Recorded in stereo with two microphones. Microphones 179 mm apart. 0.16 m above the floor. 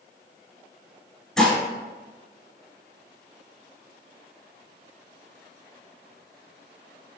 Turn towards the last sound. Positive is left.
turn(degrees=0)  # may be behind; listen again after turning